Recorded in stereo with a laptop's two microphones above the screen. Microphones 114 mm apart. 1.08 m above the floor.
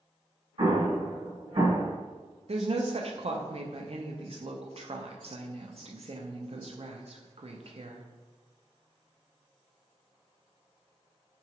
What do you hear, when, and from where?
0.6 s an explosion: 50° right (ahead or behind), 1.4 m
2.5 s a woman speaking: 60° right (ahead or behind), 0.5 m